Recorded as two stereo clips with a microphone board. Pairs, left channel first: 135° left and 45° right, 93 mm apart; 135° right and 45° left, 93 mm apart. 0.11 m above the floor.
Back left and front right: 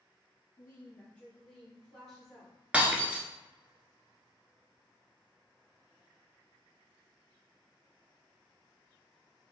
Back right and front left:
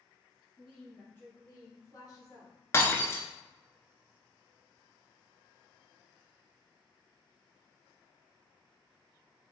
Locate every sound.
0.6 s a woman speaking: 155° left, 1.3 m; by 2.5 s 130° right, 1.7 m
2.7 s breaking glass: 110° right, 0.6 m